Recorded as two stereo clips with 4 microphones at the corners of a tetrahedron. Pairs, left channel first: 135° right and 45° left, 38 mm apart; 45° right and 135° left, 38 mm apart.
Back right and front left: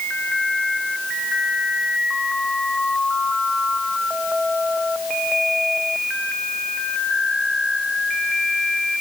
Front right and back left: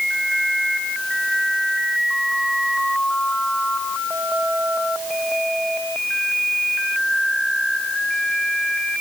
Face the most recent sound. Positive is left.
No sound to turn to.